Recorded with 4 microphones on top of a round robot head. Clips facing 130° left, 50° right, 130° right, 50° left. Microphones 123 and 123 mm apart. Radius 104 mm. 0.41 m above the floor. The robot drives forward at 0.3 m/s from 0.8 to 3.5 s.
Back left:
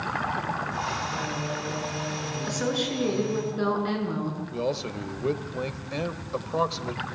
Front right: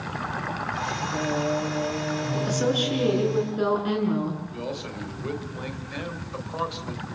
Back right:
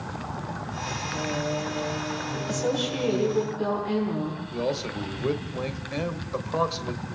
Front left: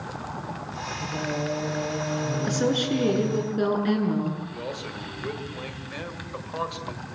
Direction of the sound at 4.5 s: Straight behind.